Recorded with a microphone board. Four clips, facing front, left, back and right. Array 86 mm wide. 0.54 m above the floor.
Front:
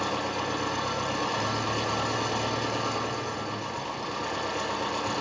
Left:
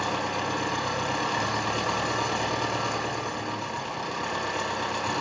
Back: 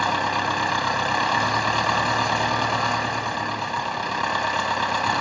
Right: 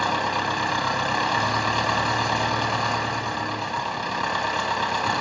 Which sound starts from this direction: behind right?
An engine running, at 0.0 s.